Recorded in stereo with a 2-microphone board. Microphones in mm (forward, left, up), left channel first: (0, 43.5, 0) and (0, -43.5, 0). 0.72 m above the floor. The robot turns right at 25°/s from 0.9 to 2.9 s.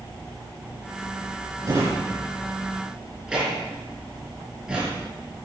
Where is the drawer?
45° right (ahead or behind), 5.5 m; by 5.1 s 10° right (ahead or behind), 5.5 m.